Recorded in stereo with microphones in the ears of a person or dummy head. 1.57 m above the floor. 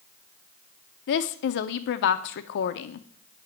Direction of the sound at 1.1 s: 50° left (ahead or behind).